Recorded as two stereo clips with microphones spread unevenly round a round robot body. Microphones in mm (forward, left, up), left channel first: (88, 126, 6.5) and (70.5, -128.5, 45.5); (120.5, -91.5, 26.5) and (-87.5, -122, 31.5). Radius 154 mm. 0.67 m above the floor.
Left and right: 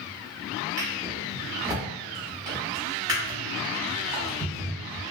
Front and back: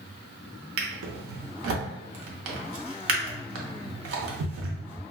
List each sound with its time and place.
0.8 s a drawer: 170° right, 0.6 m